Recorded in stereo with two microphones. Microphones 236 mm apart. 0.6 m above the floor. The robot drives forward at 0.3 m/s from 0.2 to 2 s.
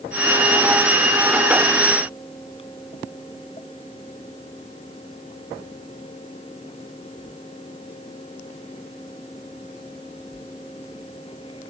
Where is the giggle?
No giggle in this recording.